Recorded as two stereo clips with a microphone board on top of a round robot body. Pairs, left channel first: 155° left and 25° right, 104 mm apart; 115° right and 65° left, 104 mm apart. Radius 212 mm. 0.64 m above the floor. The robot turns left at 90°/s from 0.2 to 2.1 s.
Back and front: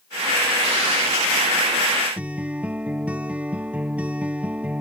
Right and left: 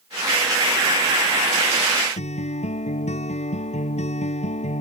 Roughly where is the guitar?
Right.